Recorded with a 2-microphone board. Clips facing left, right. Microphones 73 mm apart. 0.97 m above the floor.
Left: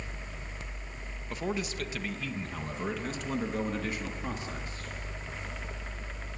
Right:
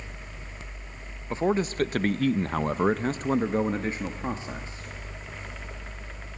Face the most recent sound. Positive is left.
turn(degrees=-25)  # may be behind; listen again after turning